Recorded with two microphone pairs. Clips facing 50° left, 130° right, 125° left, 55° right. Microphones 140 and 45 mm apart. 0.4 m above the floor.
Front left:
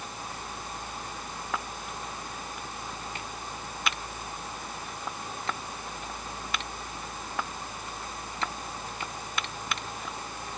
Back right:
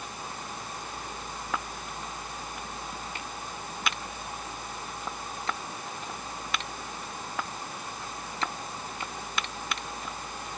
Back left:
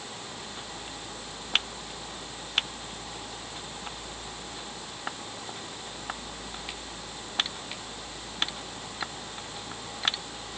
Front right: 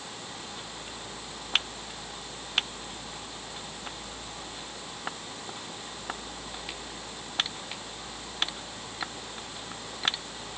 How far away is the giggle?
I don't hear a giggle.